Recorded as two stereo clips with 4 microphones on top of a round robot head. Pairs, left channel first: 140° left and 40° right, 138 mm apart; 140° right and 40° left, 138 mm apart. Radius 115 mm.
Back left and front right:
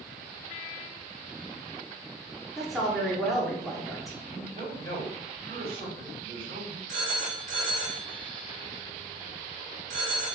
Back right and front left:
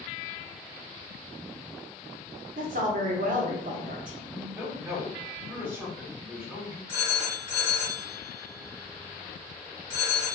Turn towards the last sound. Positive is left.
turn(degrees=-70)